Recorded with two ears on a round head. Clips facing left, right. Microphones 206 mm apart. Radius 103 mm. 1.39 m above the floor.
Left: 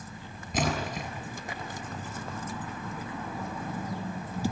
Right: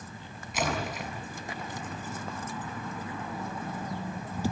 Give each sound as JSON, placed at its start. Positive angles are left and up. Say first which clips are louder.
{"t": 0.5, "sound": "a splash", "louder": "left 2 dB", "side_deg": 35, "distance_m": 7.0}